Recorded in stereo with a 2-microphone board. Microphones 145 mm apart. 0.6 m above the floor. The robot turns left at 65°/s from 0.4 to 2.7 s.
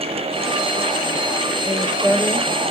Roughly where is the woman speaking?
Ahead left.